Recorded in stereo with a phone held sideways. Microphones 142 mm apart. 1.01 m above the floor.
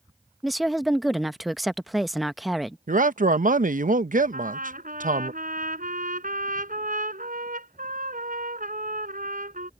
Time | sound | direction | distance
0.4 | a woman speaking | centre (ahead or behind) | ?
2.9 | a man speaking | 70° right (ahead or behind) | ?
4.3 | a trumpet | 75° right (ahead or behind) | ?